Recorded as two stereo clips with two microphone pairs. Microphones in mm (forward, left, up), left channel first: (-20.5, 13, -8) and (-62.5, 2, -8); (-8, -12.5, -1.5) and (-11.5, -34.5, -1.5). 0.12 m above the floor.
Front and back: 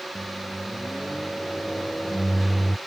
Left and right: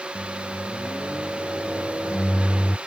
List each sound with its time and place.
0.1 s a microwave: 85° left